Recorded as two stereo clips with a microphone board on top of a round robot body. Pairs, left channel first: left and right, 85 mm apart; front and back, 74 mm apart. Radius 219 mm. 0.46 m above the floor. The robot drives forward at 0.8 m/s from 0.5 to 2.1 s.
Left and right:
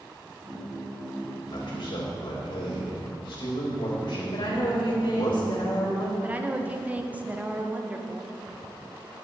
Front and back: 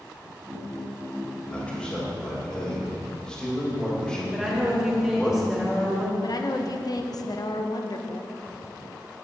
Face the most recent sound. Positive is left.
turn(degrees=-20)